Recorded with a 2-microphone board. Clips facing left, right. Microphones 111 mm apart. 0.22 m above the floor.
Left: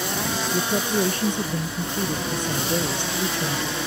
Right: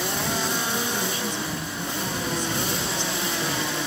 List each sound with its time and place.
0.5 s a woman speaking: 55° left (ahead or behind)